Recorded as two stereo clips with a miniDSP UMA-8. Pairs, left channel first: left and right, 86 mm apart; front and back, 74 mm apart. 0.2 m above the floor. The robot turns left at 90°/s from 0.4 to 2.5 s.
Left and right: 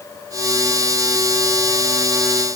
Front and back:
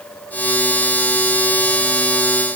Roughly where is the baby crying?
No baby crying in this recording.